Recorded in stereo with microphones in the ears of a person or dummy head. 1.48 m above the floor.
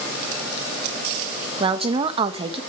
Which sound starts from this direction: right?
A woman speaking, at 1.6 s.